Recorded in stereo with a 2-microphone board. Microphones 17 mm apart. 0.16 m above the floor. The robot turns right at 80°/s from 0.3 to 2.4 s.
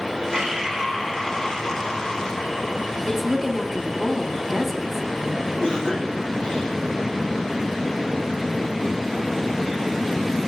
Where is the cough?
50° left (ahead or behind), 4 m.